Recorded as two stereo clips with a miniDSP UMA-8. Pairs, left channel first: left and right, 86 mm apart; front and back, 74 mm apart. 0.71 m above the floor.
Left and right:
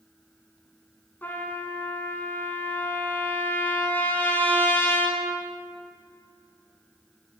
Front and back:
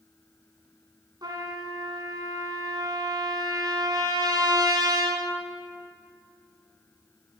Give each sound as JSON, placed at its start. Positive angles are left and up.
{"t": 1.2, "sound": "a trumpet", "azimuth_deg": 155, "distance_m": 1.9}